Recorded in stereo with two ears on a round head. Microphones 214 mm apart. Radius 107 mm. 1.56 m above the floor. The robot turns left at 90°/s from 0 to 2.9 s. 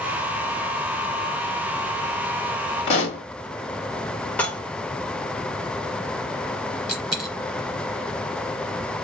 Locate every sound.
2.9 s a pop: 25° left (ahead or behind), 1.7 m; by 3.2 s 30° left (ahead or behind), 1.7 m
4.4 s dishes clattering: 5° left (ahead or behind), 1.2 m
6.9 s a dropped coin: 5° right (ahead or behind), 1.6 m